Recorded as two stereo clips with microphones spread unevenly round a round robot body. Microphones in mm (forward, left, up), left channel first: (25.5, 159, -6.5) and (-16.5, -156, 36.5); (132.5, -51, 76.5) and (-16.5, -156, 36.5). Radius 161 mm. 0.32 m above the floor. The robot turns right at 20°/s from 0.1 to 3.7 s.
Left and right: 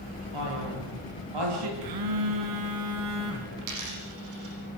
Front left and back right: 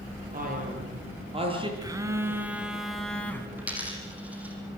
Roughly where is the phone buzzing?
Right.